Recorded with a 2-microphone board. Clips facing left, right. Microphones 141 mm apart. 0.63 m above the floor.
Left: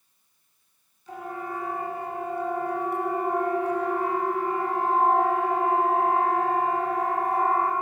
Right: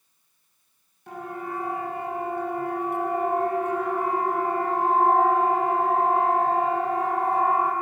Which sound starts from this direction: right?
A siren, at 1.1 s.